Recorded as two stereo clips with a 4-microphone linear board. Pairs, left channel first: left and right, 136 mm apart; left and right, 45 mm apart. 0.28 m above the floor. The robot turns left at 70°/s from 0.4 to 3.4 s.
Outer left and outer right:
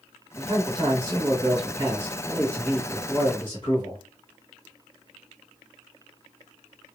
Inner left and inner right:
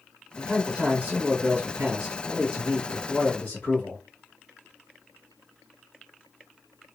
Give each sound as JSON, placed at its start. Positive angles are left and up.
{"t": 0.4, "sound": "a man speaking", "azimuth_deg": -45, "distance_m": 1.3}